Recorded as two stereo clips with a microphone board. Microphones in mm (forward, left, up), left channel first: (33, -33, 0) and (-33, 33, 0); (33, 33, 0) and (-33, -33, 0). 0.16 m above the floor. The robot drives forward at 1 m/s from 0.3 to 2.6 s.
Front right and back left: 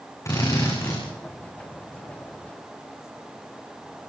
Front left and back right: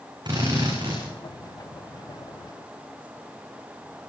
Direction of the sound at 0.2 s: 100° right.